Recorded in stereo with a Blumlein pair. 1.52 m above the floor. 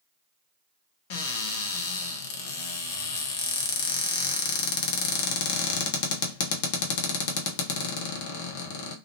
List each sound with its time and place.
1.1 s a cupboard door: 50° left, 0.7 m